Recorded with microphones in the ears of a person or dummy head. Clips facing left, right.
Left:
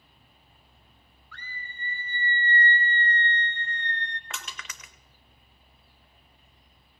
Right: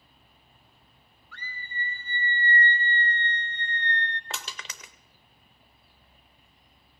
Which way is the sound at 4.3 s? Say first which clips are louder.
Right 2 dB; 25° right (ahead or behind).